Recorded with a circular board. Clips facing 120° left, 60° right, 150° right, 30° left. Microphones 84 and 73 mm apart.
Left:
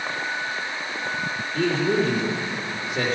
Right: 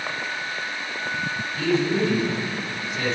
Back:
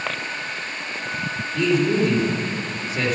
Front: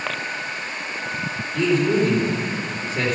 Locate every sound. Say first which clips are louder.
1.5 s a man speaking: left 1 dB, front 1 dB; 125° left, 3.5 m